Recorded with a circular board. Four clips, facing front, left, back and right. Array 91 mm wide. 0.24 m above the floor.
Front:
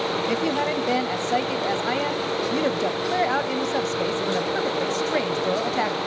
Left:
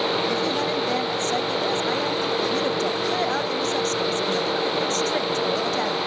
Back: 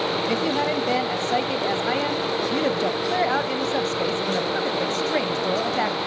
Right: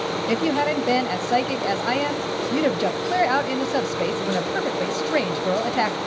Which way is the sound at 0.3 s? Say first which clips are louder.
Right 3 dB, back 1 dB; 90° right.